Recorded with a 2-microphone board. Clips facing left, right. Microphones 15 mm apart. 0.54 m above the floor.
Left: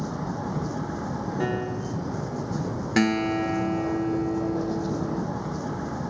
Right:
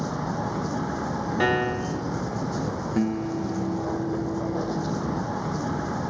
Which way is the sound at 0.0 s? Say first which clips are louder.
Right 2 dB; 15° right (ahead or behind).